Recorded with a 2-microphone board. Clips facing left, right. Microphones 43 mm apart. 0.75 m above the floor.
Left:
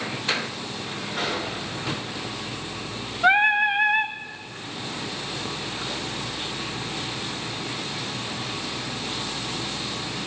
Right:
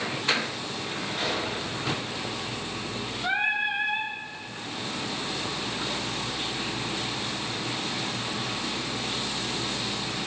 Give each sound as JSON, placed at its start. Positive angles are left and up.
{"t": 1.2, "sound": "a gunshot", "side_deg": 85, "distance_m": 8.0}
{"t": 3.2, "sound": "singing", "side_deg": 60, "distance_m": 0.8}